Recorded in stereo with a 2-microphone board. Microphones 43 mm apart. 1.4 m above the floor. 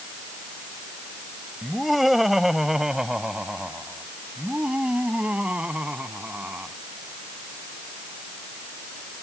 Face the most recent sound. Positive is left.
turn(degrees=-35)  # may be behind; listen again after turning